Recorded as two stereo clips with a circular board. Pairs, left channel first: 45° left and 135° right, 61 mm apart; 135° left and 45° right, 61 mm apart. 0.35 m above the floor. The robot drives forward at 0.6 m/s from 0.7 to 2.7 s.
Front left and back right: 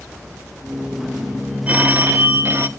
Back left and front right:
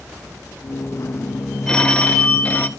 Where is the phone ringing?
160° right, 0.5 m; by 2.7 s 175° right, 1.0 m.